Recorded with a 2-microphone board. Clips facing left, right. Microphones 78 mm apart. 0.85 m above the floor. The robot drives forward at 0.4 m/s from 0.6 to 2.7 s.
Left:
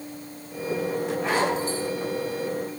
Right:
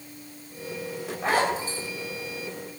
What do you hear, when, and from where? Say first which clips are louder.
1.2 s a zipper: right 2 dB; 40° right (ahead or behind), 3 m; by 1.8 s 35° right (ahead or behind), 3.5 m